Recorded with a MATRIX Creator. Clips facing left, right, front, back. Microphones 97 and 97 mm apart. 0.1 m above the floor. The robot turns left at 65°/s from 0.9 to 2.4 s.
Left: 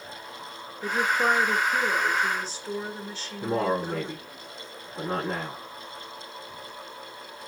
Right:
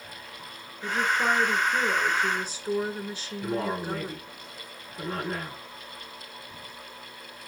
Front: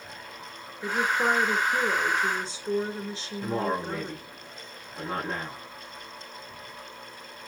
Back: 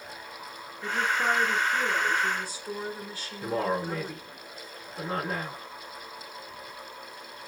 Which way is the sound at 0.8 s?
65° left.